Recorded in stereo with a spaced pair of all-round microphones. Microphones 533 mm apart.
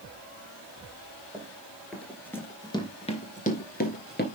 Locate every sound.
1.3 s running footsteps: 5° right (ahead or behind), 2.5 m; by 4.2 s 20° left (ahead or behind), 1.9 m